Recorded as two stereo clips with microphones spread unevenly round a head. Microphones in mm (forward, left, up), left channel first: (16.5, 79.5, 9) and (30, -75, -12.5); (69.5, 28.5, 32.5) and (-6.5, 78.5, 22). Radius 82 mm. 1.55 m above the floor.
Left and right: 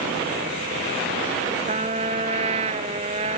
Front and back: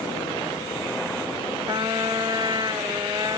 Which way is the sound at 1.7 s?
145° right.